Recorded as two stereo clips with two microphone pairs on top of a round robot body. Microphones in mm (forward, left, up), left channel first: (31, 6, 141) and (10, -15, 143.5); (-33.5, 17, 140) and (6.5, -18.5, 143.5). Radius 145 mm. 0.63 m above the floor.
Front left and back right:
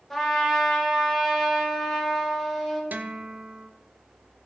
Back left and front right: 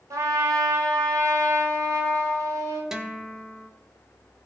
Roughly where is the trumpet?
Ahead right.